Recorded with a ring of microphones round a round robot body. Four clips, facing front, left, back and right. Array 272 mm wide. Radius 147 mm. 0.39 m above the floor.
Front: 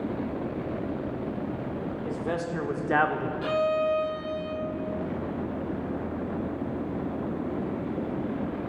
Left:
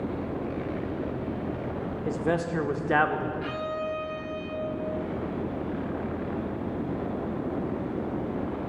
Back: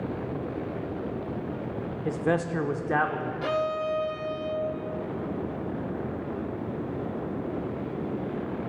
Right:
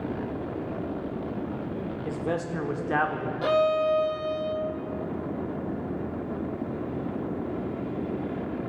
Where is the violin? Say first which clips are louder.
Right 9 dB, front 3 dB; 95° right, 0.6 m.